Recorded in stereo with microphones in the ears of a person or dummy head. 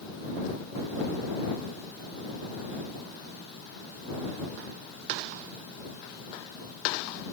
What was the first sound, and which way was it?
Only background noise.